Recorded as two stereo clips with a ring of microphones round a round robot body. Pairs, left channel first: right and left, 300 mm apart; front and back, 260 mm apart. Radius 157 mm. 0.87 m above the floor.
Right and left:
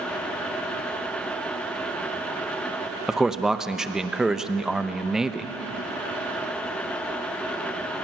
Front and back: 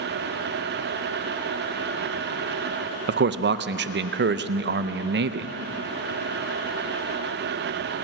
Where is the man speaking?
175° left, 0.7 m.